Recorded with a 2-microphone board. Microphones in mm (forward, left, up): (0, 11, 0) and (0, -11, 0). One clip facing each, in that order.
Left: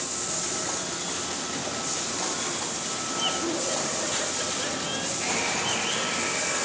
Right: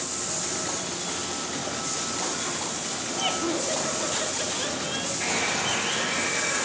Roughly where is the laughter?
Right.